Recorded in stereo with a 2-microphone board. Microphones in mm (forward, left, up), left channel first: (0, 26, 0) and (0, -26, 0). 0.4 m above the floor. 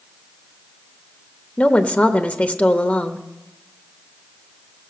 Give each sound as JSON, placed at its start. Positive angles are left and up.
{"t": 1.6, "sound": "a woman speaking", "side_deg": 25, "distance_m": 0.9}